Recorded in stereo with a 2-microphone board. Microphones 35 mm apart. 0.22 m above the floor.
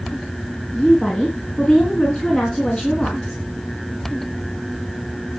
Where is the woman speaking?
20° left (ahead or behind), 2.5 m.